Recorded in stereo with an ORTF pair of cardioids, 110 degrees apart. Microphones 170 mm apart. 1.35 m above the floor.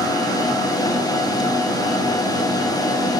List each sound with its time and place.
0.0 s a machine running: 20° left, 1.0 m